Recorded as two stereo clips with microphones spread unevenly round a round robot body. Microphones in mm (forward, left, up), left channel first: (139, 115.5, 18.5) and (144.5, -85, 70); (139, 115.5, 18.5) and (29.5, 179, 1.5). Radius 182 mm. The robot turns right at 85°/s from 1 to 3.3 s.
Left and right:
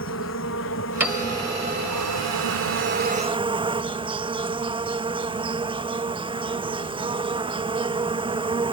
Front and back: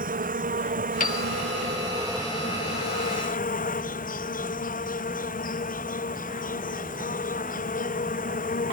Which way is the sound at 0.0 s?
140° left.